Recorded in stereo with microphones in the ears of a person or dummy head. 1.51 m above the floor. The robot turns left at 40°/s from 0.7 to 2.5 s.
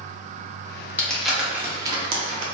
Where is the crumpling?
15° left (ahead or behind), 0.7 m; by 2.5 s 45° right (ahead or behind), 0.7 m.